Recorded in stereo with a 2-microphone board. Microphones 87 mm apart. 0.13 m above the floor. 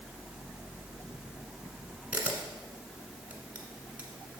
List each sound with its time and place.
2.1 s a camera shutter: 15° right (ahead or behind), 1.3 m